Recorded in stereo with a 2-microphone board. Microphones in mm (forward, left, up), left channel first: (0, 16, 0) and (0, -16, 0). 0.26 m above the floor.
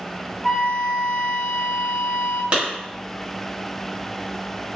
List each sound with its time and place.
0.4 s a flute: centre (ahead or behind), 0.6 m
2.5 s a clap: 35° right (ahead or behind), 1.1 m